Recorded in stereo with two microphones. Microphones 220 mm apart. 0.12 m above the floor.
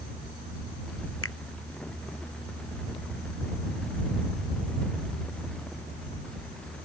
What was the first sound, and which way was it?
A finger snap, 80° left.